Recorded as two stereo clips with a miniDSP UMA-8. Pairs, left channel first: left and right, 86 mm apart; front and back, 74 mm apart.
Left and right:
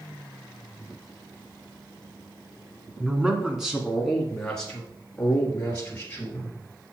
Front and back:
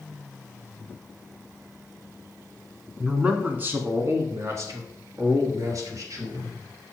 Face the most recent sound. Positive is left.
turn(degrees=160)